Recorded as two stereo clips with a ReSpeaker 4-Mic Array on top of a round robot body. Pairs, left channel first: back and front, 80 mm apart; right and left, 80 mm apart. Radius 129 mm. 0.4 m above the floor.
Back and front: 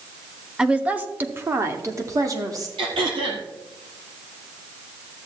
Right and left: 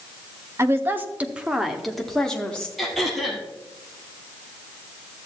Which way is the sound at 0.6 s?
70° left.